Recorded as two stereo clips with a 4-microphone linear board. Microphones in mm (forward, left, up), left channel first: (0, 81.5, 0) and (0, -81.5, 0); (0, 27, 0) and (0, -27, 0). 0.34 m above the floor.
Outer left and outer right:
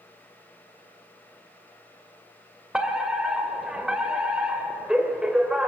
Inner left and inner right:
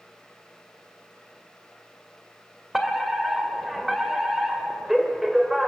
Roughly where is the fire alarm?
Centre.